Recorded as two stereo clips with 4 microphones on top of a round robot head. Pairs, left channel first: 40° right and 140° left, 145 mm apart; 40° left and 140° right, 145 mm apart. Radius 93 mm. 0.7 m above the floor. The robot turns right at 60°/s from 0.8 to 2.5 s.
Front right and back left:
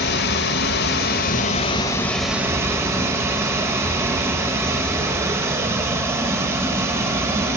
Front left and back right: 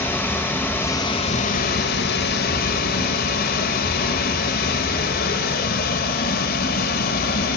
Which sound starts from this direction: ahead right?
Running water, at 0.0 s.